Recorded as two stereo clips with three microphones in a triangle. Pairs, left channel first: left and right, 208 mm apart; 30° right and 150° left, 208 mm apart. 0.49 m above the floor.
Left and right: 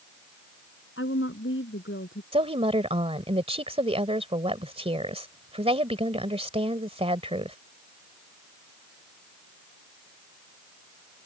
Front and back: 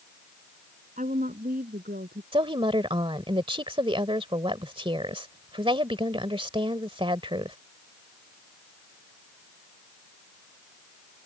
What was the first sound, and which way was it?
A woman speaking, 100° left.